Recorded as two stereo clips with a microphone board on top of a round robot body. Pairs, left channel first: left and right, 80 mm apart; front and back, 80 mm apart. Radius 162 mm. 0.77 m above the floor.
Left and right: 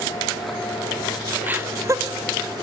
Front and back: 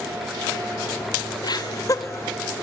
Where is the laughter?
20° right, 2 m; by 2.6 s 70° right, 2 m.